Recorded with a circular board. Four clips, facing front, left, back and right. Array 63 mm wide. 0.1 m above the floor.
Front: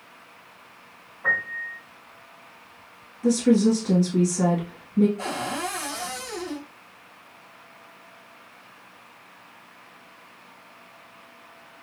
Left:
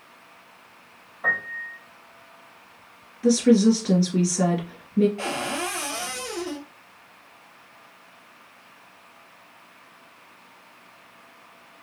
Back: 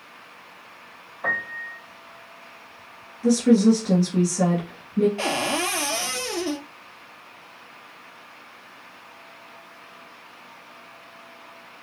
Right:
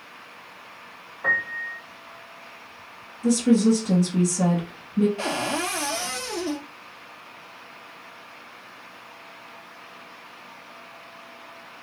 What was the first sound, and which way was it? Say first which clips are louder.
A piano: right 1 dB, front 2 dB; 155° left.